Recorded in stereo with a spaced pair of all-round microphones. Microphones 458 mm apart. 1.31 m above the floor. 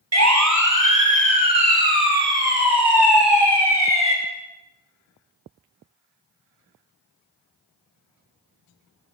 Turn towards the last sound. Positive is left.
turn(degrees=-65)  # may be behind; listen again after turning